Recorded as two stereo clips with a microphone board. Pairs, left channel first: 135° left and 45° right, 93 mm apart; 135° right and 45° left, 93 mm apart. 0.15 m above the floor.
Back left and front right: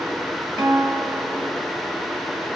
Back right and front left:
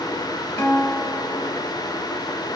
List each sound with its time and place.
0.6 s a guitar: 70° right, 1.8 m